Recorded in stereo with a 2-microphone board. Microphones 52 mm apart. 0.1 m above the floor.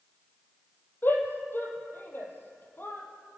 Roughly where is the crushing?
I don't hear crushing.